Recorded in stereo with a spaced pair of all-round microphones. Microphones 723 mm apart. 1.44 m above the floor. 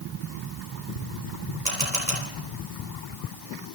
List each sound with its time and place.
1.6 s a camera shutter: 80° right, 5 m